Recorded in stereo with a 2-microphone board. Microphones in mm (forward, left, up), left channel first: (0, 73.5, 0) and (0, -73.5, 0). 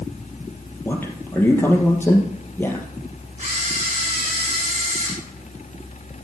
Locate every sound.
0.8 s a man speaking: 15° left (ahead or behind), 2.5 m
3.4 s a camera shutter: 45° right (ahead or behind), 4.5 m